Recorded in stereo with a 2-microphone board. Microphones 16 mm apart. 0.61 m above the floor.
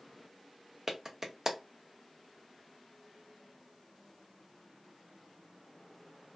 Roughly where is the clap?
Right.